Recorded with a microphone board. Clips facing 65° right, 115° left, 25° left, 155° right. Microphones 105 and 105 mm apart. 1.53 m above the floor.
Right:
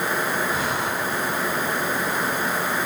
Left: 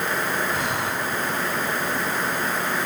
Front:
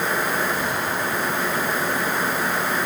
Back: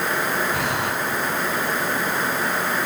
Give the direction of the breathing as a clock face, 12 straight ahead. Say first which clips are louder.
Right 1 dB, back 1 dB; 5 o'clock.